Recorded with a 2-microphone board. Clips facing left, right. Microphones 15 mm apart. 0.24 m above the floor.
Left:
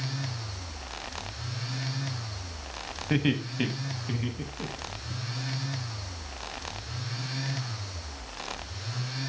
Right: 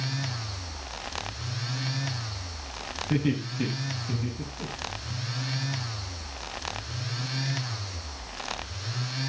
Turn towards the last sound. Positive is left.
turn(degrees=55)  # may be behind; listen again after turning